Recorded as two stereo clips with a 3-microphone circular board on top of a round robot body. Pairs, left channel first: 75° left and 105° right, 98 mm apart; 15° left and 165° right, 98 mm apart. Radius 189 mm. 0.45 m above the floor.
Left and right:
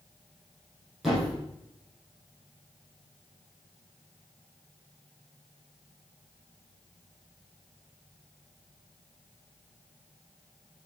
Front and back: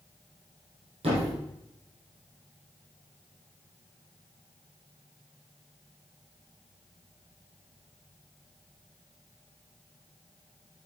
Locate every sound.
1.0 s a thud: 165° left, 4 m